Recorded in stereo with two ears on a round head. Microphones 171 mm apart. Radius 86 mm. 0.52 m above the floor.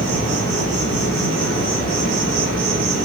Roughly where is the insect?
Right.